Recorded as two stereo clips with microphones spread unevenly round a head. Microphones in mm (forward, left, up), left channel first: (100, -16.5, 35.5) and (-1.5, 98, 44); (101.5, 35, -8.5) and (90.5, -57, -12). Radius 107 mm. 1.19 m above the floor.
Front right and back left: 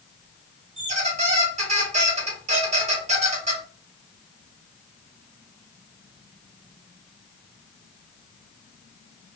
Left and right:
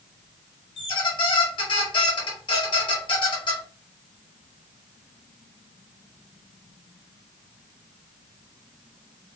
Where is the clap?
No clap in this recording.